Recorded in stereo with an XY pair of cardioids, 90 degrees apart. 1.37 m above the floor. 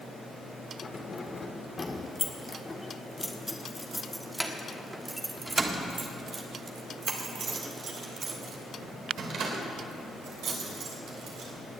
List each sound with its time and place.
0.8 s keys jangling: 40° left, 2.5 m; by 11.5 s 80° right, 4 m